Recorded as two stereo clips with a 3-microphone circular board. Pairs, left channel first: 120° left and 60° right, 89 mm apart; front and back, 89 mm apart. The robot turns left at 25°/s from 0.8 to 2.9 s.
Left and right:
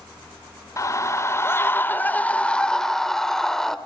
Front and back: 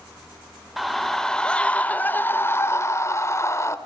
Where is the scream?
90° left, 1.3 m; by 3.8 s 40° left, 1.3 m.